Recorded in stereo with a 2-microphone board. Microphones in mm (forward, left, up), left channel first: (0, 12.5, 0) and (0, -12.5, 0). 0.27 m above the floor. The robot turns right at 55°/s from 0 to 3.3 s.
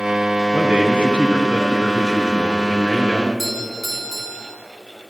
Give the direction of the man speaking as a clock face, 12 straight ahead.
3 o'clock.